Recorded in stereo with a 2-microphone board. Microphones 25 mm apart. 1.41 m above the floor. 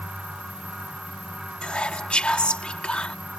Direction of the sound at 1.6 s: 55° left (ahead or behind).